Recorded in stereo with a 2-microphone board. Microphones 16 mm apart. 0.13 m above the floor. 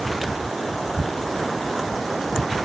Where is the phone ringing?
No phone ringing in this recording.